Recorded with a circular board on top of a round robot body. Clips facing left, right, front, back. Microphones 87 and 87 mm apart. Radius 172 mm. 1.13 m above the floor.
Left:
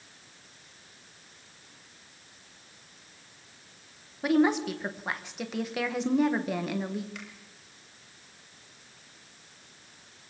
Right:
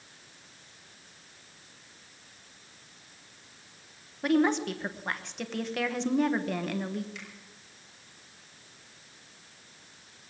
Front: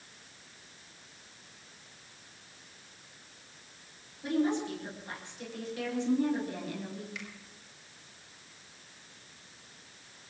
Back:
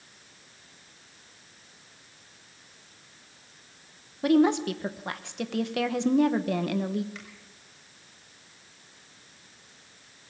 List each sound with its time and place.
4.2 s a woman speaking: 175° left, 1.3 m
7.2 s a finger snap: 130° left, 6 m